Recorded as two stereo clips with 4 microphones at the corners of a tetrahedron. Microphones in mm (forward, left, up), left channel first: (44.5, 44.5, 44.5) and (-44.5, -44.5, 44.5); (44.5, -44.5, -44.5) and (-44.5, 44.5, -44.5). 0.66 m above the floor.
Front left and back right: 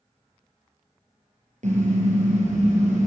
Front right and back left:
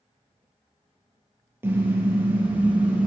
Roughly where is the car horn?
Behind right.